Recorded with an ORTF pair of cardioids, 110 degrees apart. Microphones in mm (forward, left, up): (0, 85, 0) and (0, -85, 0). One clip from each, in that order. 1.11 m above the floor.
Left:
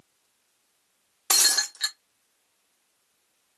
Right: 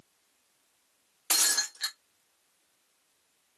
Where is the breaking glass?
25° left, 0.9 m.